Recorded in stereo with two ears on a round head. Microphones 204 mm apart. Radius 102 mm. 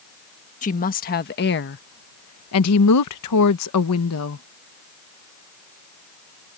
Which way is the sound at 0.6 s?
35° left (ahead or behind).